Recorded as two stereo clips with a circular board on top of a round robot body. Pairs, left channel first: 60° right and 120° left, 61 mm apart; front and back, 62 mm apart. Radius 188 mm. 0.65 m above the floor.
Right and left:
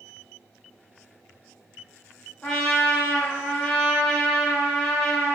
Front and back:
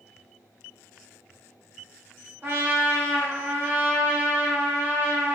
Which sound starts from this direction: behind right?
A trumpet, at 2.4 s.